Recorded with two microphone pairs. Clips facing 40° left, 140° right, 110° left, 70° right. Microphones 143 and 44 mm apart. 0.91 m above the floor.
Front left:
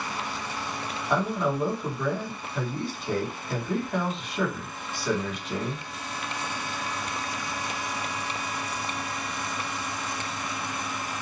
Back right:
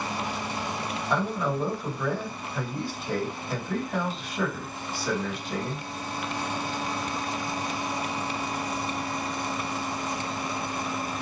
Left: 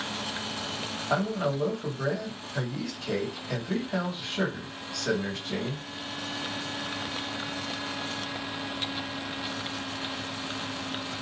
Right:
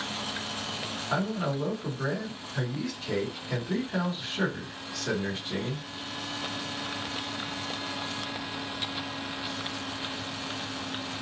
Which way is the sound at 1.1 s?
135° left.